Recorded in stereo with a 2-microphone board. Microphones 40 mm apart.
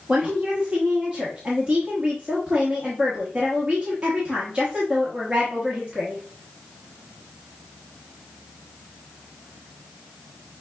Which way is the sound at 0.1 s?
25° right (ahead or behind).